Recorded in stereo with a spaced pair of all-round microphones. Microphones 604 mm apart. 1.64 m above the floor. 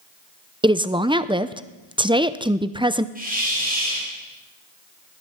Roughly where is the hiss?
Centre.